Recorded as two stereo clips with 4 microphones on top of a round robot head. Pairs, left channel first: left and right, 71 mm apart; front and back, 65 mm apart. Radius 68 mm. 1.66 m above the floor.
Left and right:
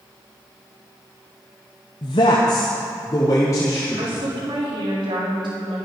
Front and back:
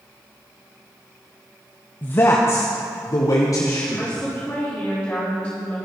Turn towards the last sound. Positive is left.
turn(degrees=-75)